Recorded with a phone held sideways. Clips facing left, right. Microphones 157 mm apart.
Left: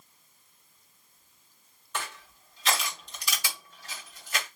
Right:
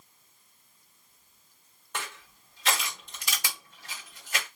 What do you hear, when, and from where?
1.9 s crushing: 50° right (ahead or behind), 2 m